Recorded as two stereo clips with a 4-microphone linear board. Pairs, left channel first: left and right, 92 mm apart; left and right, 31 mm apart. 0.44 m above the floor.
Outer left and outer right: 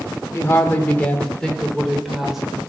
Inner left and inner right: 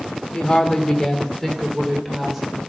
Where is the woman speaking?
30° left (ahead or behind), 1.1 m; by 2.6 s 10° right (ahead or behind), 1.5 m.